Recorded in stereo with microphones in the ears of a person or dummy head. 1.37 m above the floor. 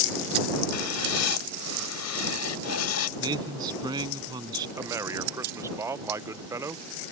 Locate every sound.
0.7 s writing: 90° left
3.2 s a man speaking: 25° right (ahead or behind)
4.8 s a man speaking: 15° right (ahead or behind)